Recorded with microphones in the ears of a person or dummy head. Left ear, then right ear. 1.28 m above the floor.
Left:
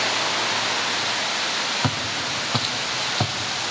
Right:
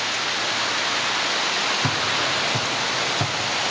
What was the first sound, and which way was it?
Footsteps, 50° left (ahead or behind).